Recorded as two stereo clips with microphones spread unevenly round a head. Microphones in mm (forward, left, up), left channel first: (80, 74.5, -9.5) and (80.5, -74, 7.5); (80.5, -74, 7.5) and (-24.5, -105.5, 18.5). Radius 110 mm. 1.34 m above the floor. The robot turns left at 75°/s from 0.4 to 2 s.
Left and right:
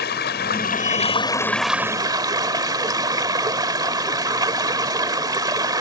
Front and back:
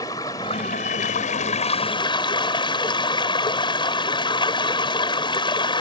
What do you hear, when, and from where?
0.0 s running water: 90° left; by 5.8 s 30° right